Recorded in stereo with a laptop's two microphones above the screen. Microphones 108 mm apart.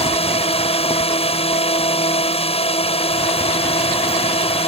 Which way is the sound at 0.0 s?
65° left (ahead or behind).